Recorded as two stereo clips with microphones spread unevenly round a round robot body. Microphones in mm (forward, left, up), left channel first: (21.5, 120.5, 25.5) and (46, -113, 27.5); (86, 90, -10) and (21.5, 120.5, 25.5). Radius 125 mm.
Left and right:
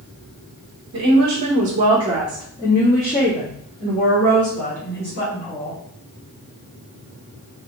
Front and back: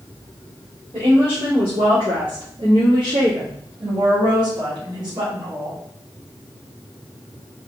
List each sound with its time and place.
0.9 s a woman speaking: 125° right, 1.1 m; by 5.8 s 120° left, 2.5 m